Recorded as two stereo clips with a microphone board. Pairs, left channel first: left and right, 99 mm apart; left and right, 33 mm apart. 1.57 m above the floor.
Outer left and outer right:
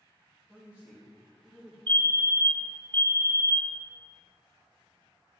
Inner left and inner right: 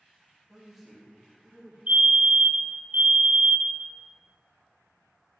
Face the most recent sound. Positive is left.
turn(degrees=-50)  # may be behind; listen again after turning